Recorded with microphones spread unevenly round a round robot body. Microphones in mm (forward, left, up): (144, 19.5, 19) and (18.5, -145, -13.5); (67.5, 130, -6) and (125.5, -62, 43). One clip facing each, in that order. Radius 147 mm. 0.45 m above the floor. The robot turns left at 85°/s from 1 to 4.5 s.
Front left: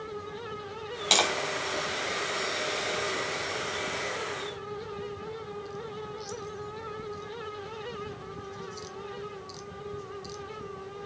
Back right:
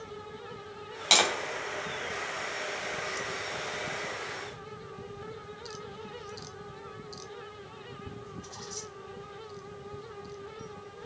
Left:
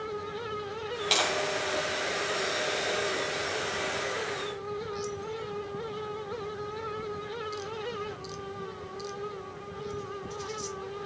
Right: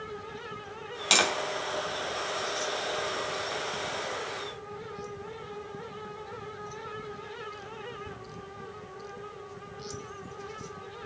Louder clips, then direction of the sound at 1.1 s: Even, right 4 dB; 40° right.